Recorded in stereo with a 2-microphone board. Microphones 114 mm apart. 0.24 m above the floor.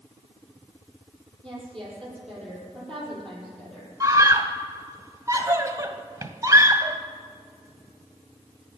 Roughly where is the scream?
Right.